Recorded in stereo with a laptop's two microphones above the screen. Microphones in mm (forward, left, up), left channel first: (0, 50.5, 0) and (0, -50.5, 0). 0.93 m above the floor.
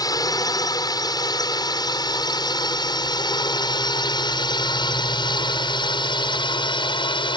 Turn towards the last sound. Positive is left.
turn(degrees=55)  # may be behind; listen again after turning